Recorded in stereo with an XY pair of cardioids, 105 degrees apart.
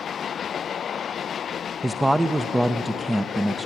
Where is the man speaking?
10° right, 0.6 m.